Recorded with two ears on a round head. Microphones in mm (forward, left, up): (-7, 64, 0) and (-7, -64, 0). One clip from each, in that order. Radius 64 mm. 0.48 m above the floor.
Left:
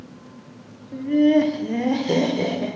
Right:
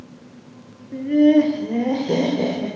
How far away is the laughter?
About 1.3 m.